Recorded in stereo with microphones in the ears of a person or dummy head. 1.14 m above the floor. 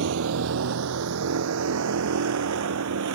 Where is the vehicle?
70° right (ahead or behind); by 3.2 s 80° right.